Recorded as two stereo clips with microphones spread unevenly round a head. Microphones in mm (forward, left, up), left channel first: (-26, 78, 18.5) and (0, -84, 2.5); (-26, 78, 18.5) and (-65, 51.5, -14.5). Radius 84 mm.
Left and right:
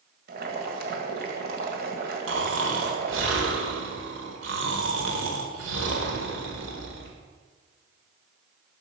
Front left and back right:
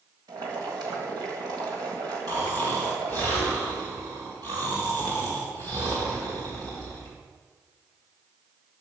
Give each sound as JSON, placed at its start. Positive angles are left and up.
{"t": 0.3, "sound": "boiling", "azimuth_deg": -115, "distance_m": 1.5}
{"t": 2.3, "sound": "snoring", "azimuth_deg": -90, "distance_m": 1.6}